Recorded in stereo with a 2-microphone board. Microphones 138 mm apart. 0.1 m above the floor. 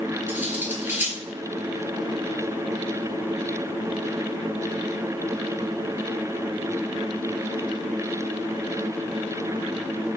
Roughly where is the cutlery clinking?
Centre.